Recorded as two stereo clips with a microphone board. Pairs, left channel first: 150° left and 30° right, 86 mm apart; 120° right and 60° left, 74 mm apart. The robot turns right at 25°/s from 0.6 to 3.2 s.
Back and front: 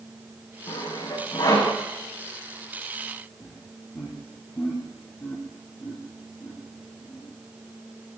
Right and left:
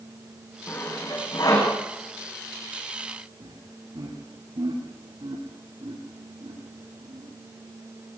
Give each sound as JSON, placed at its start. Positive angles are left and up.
{"t": 0.7, "sound": "sawing", "azimuth_deg": 180, "distance_m": 9.5}
{"t": 3.4, "sound": "laughter", "azimuth_deg": 85, "distance_m": 6.5}